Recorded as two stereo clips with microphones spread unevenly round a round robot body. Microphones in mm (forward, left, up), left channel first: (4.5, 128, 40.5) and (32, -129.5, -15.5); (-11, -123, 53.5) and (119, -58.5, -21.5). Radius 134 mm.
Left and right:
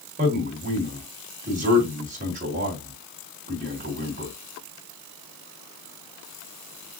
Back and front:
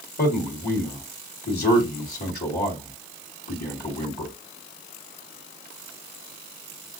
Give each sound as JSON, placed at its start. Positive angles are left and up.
{"t": 0.2, "sound": "a man speaking", "azimuth_deg": -125, "distance_m": 1.8}